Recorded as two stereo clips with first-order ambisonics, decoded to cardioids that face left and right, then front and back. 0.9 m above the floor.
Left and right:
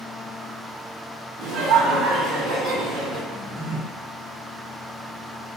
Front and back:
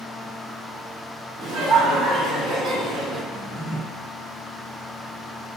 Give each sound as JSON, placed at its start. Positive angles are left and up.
{"t": 1.4, "sound": "laughter", "azimuth_deg": -120, "distance_m": 1.1}
{"t": 3.3, "sound": "a drawer", "azimuth_deg": -125, "distance_m": 1.9}